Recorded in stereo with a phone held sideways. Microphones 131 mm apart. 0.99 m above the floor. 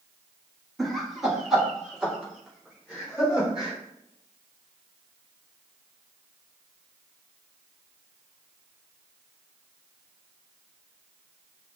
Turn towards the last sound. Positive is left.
turn(degrees=-5)  # may be behind; listen again after turning